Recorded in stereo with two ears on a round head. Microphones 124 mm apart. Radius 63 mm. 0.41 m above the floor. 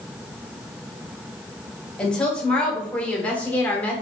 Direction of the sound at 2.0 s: 10° left (ahead or behind).